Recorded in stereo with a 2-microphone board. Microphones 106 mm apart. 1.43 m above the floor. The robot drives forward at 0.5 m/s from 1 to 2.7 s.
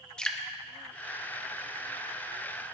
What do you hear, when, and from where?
0.2 s dripping: 5° left (ahead or behind), 0.8 m